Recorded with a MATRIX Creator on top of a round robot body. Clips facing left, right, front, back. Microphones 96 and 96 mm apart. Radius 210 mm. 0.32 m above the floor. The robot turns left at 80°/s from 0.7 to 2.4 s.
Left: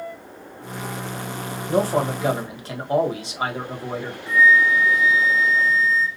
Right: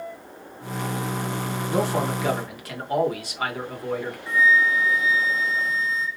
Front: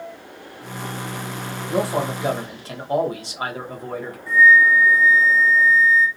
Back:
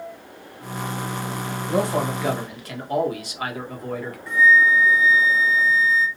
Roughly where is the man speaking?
Left.